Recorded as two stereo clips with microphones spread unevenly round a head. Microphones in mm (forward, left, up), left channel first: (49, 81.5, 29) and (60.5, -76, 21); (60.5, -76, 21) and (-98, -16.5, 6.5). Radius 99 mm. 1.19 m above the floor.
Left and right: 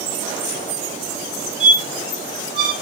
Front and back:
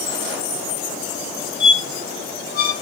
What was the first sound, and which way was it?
A squeak, 35° right.